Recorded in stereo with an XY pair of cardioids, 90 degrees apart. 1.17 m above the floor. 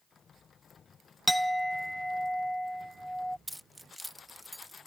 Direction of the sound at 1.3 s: Straight ahead.